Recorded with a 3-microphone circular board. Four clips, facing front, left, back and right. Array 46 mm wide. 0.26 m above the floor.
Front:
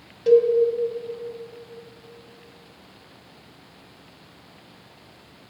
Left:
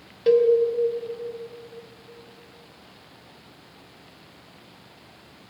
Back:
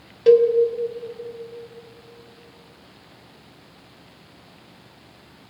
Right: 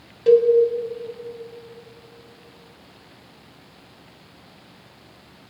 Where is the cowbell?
165° left, 2.0 m.